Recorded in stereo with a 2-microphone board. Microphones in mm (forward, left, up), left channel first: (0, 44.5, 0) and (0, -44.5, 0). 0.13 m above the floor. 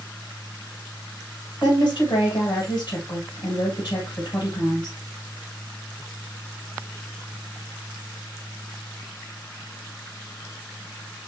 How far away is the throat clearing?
No throat clearing in this recording.